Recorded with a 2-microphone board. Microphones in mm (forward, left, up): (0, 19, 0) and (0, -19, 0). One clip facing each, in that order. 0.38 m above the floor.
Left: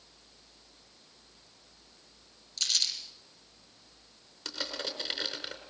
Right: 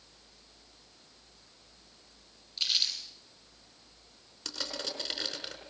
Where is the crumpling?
15° right (ahead or behind), 5 m.